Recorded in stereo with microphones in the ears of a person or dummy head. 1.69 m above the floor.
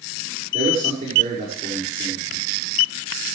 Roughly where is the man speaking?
Right.